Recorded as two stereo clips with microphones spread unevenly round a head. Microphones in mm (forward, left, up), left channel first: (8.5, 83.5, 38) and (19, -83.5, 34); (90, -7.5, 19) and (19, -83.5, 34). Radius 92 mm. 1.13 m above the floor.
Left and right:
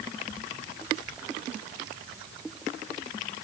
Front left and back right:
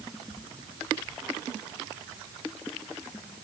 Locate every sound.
Only background noise.